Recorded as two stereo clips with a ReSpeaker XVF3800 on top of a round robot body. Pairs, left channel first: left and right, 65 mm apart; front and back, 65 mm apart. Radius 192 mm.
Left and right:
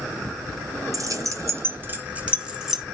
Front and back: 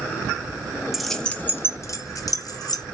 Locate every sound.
0.9 s keys jangling: 95° right, 1.2 m; by 2.8 s 5° right, 1.9 m